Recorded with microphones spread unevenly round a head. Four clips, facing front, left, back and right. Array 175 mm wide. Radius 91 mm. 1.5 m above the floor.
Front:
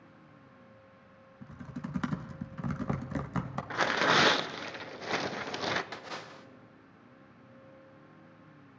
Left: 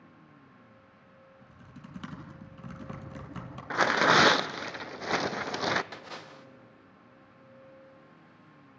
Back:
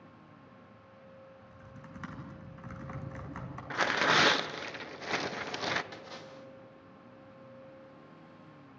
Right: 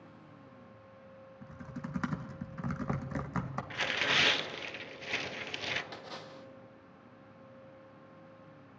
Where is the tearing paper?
75° left, 0.6 m.